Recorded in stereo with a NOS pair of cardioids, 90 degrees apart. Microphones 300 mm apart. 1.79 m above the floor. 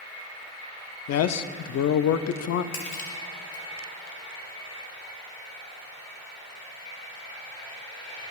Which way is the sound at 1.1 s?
55° left.